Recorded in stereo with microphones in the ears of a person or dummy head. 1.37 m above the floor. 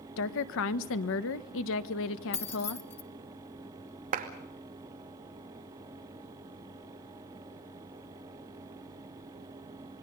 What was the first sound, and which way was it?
A woman speaking, 65° left (ahead or behind).